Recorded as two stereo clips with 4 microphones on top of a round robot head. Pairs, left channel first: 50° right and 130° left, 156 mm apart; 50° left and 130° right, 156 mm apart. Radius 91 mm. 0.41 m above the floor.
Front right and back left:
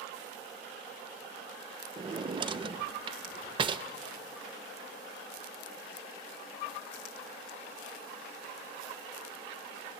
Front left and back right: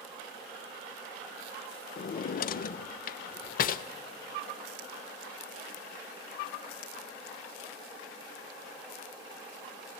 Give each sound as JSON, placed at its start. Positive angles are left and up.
{"t": 2.0, "sound": "a drawer", "azimuth_deg": 75, "distance_m": 0.5}